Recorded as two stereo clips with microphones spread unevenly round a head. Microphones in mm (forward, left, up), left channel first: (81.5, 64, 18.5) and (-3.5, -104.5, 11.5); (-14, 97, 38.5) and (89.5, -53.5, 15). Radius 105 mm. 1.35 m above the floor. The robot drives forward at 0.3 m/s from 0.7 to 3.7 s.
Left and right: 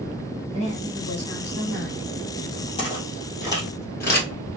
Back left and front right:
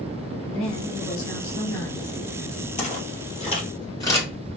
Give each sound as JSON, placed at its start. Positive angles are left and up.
{"t": 0.4, "sound": "a woman speaking", "azimuth_deg": 125, "distance_m": 1.7}
{"t": 2.8, "sound": "footsteps", "azimuth_deg": 120, "distance_m": 1.8}